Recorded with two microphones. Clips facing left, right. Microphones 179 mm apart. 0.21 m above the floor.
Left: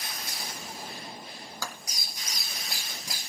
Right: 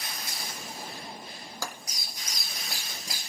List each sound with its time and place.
1.6 s tapping: 15° right (ahead or behind), 2.0 m